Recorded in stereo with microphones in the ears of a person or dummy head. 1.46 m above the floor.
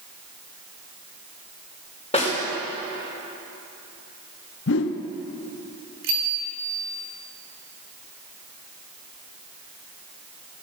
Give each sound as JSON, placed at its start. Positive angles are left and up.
{"t": 2.1, "sound": "a snare drum", "side_deg": 30, "distance_m": 5.0}
{"t": 4.7, "sound": "a whoosh", "side_deg": 60, "distance_m": 0.8}
{"t": 6.0, "sound": "a bicycle bell", "side_deg": -70, "distance_m": 3.5}